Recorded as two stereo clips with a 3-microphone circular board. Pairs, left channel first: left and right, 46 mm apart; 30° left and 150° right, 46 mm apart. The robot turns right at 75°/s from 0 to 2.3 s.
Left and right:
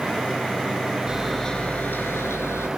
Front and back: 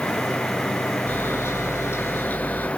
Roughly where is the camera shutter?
Ahead.